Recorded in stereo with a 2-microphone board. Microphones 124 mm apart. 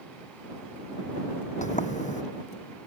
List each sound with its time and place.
1.6 s a sliding door: 80° left